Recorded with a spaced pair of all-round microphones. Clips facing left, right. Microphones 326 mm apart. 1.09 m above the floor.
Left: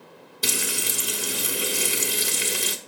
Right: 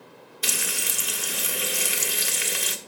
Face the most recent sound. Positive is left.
turn(degrees=45)  # may be behind; listen again after turning